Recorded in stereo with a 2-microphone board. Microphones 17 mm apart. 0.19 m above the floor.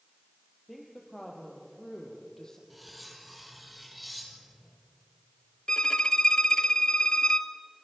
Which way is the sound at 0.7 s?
10° left (ahead or behind).